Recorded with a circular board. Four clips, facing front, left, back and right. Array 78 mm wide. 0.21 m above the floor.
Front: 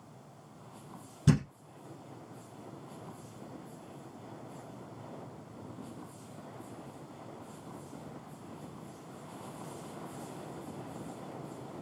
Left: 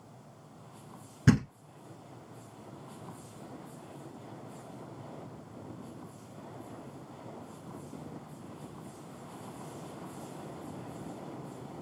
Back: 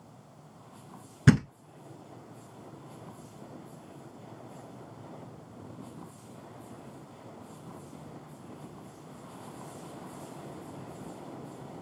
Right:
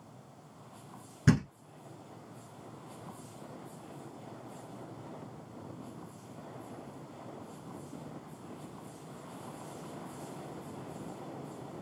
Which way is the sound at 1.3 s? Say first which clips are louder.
Left 2 dB, back 5 dB; 175° left.